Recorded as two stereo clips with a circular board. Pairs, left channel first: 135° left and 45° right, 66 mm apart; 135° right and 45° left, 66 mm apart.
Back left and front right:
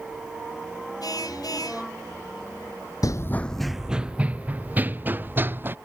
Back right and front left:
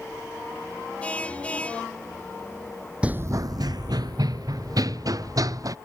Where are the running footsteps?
115° left; by 5.7 s 15° left.